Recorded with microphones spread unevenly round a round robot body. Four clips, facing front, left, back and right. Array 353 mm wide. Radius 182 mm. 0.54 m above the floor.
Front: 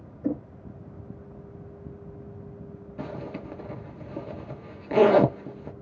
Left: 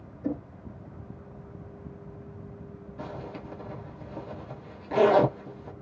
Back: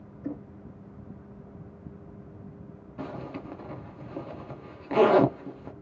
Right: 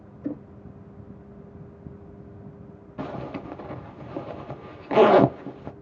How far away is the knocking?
About 0.8 m.